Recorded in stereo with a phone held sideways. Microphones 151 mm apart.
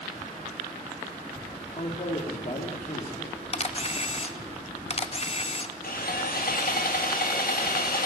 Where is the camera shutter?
40° left (ahead or behind), 0.8 m.